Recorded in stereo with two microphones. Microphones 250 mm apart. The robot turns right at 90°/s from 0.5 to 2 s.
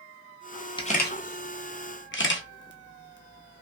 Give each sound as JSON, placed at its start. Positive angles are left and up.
{"t": 0.8, "sound": "a camera shutter", "side_deg": 20, "distance_m": 0.6}